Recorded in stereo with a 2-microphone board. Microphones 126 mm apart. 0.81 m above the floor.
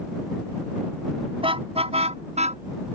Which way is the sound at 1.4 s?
45° right (ahead or behind).